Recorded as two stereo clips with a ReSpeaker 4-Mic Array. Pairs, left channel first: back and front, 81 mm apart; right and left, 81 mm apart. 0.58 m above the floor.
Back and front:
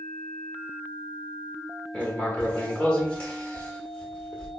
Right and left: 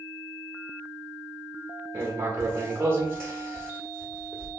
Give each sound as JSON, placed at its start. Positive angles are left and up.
{"t": 1.9, "sound": "writing", "azimuth_deg": 120, "distance_m": 1.1}